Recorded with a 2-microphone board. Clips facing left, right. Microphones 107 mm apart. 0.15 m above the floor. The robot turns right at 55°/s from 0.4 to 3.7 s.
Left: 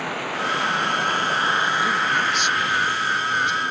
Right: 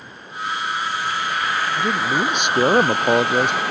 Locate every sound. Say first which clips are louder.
0.0 s running water: left 6 dB; 95° left; by 3.7 s 85° right
1.8 s a man speaking: right 2 dB; 155° right; by 3.6 s 50° right